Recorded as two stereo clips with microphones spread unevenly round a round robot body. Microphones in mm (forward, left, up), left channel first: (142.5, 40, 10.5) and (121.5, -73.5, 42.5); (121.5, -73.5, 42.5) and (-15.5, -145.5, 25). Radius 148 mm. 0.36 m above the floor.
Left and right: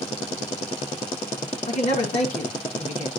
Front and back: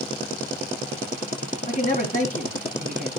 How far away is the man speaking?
About 3.5 m.